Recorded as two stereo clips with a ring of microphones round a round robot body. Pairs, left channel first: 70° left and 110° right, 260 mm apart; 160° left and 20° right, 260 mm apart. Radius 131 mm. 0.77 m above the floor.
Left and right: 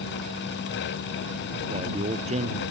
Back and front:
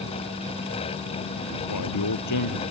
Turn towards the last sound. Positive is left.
turn(degrees=180)